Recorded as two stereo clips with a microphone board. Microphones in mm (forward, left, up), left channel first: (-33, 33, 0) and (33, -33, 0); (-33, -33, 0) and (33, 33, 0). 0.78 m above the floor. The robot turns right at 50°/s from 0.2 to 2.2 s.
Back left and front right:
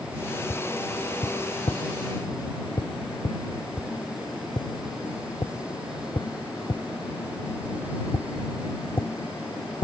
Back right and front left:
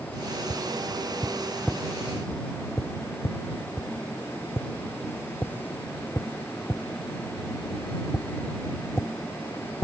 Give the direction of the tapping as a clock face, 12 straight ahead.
9 o'clock.